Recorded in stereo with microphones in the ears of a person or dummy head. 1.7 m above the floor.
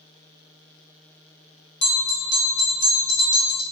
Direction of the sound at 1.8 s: 70° left (ahead or behind).